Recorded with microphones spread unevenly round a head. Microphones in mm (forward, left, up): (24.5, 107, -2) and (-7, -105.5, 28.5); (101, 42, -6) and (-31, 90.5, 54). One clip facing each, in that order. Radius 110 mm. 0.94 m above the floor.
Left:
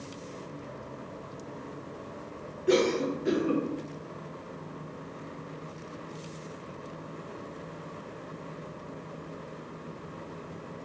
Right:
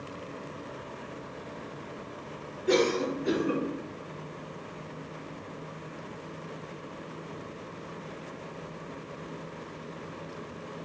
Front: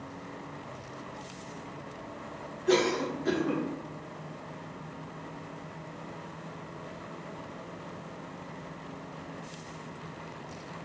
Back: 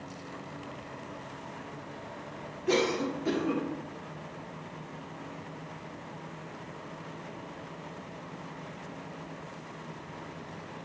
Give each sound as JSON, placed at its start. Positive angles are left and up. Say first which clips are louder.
{"t": 2.7, "sound": "a cough", "louder": "left 1 dB, front 2 dB", "azimuth_deg": 45, "distance_m": 0.9}